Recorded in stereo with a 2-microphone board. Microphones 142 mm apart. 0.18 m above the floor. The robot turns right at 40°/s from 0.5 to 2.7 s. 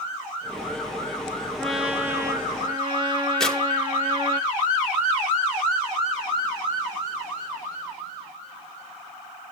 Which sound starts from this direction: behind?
A trumpet, at 1.6 s.